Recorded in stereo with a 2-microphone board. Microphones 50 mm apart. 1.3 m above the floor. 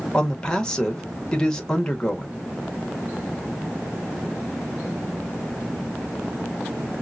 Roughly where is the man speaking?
Centre.